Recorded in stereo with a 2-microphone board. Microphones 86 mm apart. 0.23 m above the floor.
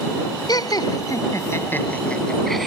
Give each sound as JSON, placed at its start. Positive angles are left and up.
{"t": 0.5, "sound": "laughter", "side_deg": 55}